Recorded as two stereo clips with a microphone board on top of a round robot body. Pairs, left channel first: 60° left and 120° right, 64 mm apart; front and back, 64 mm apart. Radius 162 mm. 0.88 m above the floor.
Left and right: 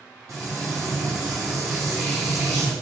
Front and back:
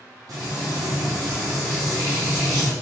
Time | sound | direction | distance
0.3 | frying | 155° right | 0.9 m